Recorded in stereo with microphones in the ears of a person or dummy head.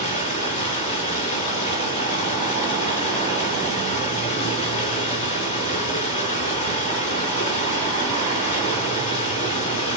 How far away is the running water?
About 3.5 m.